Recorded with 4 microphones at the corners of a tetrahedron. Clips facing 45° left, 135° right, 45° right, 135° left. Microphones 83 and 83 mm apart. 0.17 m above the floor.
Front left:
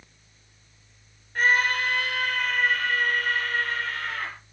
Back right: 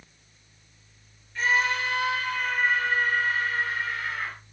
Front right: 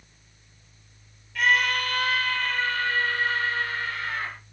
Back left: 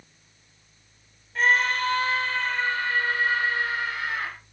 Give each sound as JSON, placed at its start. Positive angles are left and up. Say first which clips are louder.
{"t": 1.4, "sound": "a scream", "louder": "front left 2 dB, back left 1 dB", "azimuth_deg": 80, "distance_m": 3.5}